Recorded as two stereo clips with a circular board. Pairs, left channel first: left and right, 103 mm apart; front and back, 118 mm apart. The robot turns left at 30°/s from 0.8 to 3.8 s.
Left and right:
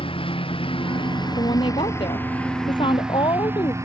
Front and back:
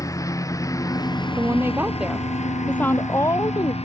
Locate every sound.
0.0 s a lawn mower: 60° left; by 3.8 s 30° right
1.4 s a woman speaking: 120° left; by 3.7 s 45° left